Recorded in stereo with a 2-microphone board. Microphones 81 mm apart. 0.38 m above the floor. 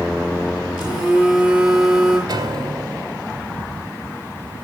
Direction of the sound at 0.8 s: 5° right (ahead or behind).